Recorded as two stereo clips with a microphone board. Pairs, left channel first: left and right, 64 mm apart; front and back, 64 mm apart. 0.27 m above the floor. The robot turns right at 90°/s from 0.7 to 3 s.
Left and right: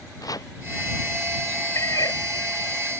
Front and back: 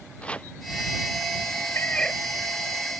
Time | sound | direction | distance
0.2 | chopping | 70° left | ?
1.8 | a cat meowing | 50° left | ?